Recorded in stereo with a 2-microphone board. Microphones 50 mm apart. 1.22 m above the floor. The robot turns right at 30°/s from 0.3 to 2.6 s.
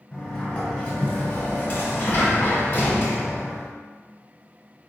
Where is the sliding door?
20° left, 1.3 m; by 3.7 s 90° left, 1.3 m.